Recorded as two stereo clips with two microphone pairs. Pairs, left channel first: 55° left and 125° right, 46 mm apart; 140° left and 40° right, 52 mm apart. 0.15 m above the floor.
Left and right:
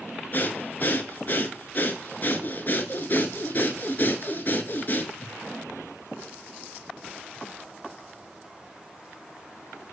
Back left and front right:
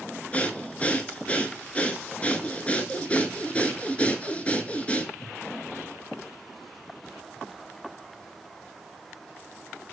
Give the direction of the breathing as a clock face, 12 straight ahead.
9 o'clock.